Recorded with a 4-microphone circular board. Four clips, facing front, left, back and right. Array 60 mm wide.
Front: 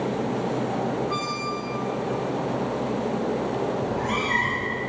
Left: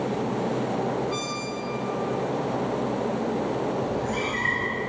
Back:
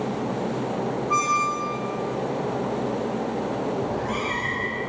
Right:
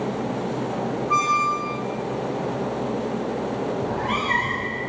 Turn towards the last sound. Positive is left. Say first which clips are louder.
# right 3 dB, front 1 dB
turn(degrees=-80)